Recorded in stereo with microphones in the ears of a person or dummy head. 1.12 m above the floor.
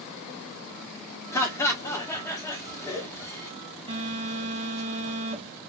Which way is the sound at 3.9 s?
25° right (ahead or behind).